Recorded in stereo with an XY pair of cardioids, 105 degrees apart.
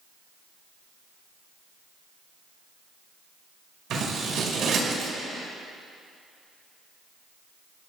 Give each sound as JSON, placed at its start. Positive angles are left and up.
{"t": 3.9, "sound": "scissors", "azimuth_deg": -65, "distance_m": 5.5}